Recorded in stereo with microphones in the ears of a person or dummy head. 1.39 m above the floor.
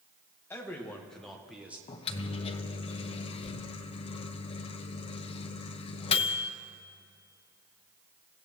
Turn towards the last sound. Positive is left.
turn(degrees=35)  # may be behind; listen again after turning